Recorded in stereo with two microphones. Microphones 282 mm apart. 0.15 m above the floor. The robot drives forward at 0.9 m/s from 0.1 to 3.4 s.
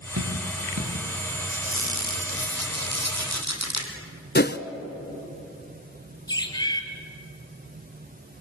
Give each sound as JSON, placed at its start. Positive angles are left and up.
{"t": 0.2, "sound": "dripping", "side_deg": -65, "distance_m": 7.5}
{"t": 1.5, "sound": "a squeak", "side_deg": -50, "distance_m": 4.0}
{"t": 4.3, "sound": "a whoosh", "side_deg": 35, "distance_m": 0.8}
{"t": 6.3, "sound": "a bird", "side_deg": 15, "distance_m": 2.5}